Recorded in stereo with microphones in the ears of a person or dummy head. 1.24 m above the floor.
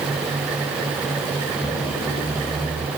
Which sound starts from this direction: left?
A squeak, at 1.6 s.